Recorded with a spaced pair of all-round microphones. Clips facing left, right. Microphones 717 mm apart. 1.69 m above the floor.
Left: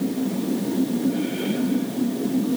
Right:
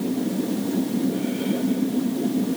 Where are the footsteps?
I don't hear footsteps.